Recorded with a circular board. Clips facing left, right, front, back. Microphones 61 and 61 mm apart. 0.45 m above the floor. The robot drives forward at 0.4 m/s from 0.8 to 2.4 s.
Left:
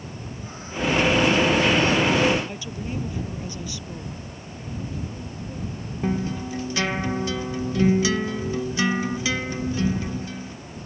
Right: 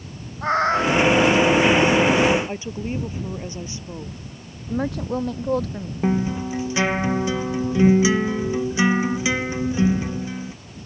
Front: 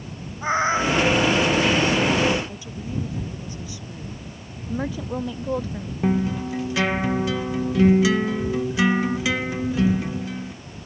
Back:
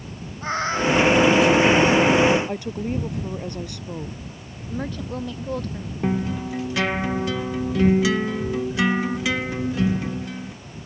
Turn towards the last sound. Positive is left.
turn(degrees=-95)